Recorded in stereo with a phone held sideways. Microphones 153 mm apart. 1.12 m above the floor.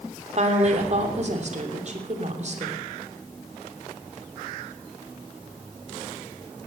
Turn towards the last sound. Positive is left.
turn(degrees=-50)  # may be behind; listen again after turning